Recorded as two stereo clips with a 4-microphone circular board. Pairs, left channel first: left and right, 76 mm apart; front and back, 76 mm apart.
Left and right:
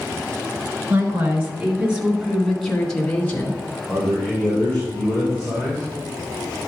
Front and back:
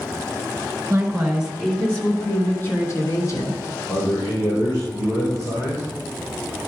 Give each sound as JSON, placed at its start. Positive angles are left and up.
{"t": 0.9, "sound": "a woman speaking", "azimuth_deg": -115, "distance_m": 1.8}
{"t": 3.9, "sound": "a man speaking", "azimuth_deg": -5, "distance_m": 4.0}